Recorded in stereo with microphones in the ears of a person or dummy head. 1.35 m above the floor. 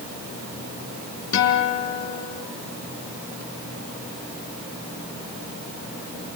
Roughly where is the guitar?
Left.